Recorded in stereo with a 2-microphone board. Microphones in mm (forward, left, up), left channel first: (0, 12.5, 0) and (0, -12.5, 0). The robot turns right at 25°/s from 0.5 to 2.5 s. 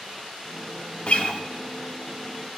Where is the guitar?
55° left (ahead or behind), 0.6 m; by 1.4 s 50° left (ahead or behind), 0.6 m.